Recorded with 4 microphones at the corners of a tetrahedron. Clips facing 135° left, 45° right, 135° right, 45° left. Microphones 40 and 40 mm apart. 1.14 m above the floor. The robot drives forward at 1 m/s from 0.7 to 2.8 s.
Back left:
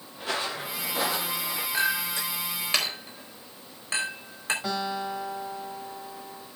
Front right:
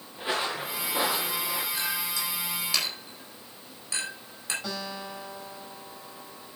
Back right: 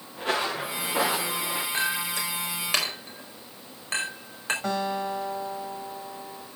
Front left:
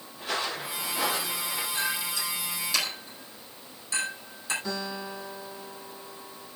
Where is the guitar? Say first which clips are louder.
Back left 6 dB, back right 6 dB; 150° right, 7.5 m.